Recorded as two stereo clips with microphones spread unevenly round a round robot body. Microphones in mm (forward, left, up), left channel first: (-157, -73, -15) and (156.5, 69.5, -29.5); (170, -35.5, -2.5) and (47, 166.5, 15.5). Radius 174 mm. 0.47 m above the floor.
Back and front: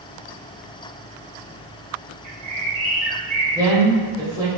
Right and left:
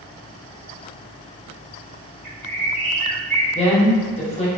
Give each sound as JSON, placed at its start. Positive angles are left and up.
{"t": 2.2, "sound": "a bird", "azimuth_deg": -30, "distance_m": 1.6}
{"t": 3.5, "sound": "a woman speaking", "azimuth_deg": -45, "distance_m": 0.8}